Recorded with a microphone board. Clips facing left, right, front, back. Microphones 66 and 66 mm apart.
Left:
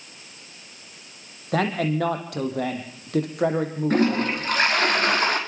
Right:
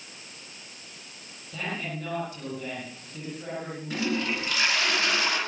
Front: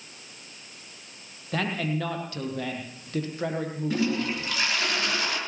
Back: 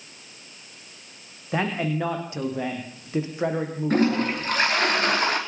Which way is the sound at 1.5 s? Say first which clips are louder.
Left 11 dB, back 3 dB; 110° left.